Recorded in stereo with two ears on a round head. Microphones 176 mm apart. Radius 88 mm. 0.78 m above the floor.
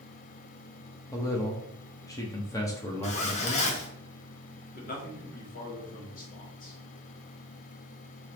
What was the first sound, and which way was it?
A man speaking, 15° left (ahead or behind).